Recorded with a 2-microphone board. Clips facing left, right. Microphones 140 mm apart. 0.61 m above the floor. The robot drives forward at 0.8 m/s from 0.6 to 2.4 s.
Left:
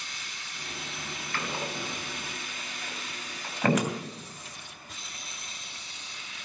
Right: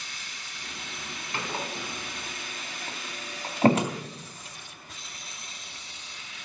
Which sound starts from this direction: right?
A door slam, at 1.3 s.